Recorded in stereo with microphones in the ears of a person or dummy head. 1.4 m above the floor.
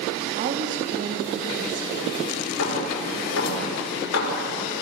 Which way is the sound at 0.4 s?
45° right (ahead or behind).